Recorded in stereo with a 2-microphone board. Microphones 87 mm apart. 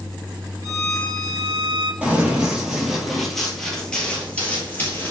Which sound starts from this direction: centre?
Running footsteps, at 2.0 s.